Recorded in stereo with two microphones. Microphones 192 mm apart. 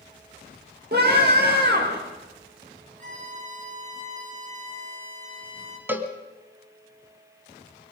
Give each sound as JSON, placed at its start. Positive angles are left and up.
{"t": 0.9, "sound": "a scream", "side_deg": -55, "distance_m": 5.5}
{"t": 3.0, "sound": "a violin", "side_deg": -40, "distance_m": 4.5}
{"t": 5.9, "sound": "a cowbell", "side_deg": -10, "distance_m": 1.5}